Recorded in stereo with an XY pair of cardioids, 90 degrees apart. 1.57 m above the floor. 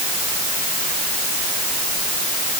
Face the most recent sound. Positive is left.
No sound to turn to.